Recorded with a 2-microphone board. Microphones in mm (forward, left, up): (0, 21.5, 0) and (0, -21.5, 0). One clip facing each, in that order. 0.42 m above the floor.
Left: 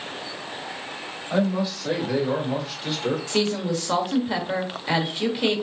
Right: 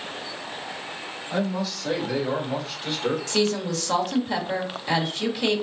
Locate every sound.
1.3 s a man speaking: 25° left (ahead or behind), 2 m; by 3.2 s 10° right (ahead or behind), 1.7 m
3.3 s a woman speaking: 15° left (ahead or behind), 1.2 m